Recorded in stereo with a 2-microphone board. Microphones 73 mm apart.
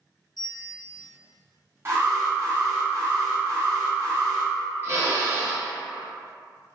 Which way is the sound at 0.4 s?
75° left (ahead or behind).